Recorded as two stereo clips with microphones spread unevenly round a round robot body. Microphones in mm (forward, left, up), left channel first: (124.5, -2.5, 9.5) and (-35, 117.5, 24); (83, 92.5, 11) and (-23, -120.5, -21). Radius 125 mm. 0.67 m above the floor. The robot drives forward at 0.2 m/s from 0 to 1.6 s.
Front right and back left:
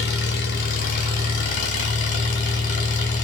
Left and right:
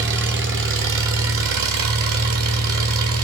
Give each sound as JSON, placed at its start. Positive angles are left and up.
{"t": 0.0, "sound": "an engine running", "azimuth_deg": -80, "distance_m": 1.3}